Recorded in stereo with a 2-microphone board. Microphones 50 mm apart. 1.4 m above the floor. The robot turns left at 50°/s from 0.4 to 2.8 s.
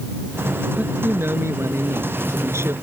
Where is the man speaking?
25° right; by 2.7 s 125° right.